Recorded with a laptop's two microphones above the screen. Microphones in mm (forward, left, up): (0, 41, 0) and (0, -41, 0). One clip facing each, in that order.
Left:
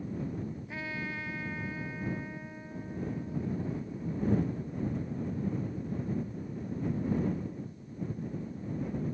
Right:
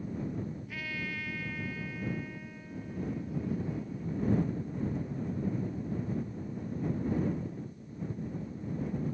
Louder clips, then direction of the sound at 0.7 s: Left 1 dB; 25° left (ahead or behind).